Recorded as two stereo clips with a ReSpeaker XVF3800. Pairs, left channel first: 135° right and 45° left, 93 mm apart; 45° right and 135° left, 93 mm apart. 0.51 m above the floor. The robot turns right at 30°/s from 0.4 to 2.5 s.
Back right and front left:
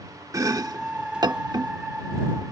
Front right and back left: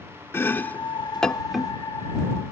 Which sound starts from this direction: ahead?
Chopping, at 0.3 s.